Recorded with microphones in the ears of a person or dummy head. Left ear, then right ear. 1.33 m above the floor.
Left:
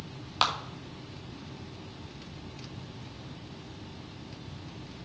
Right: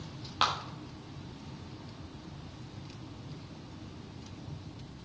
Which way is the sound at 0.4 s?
20° left (ahead or behind).